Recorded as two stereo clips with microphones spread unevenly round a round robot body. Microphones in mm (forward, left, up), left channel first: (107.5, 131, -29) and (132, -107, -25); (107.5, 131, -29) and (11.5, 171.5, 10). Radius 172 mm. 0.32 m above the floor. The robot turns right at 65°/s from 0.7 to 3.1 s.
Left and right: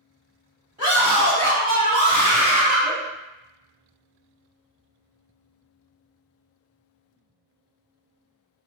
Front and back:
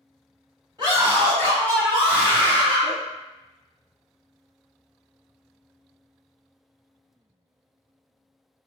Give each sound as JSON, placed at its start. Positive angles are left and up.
{"t": 0.8, "sound": "a scream", "azimuth_deg": -125, "distance_m": 1.6}